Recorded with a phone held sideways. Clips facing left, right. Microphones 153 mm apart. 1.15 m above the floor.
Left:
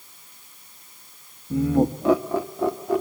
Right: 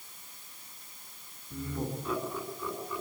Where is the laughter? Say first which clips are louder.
Left 16 dB; 80° left, 1.5 m; by 3.0 s 85° left, 2.5 m.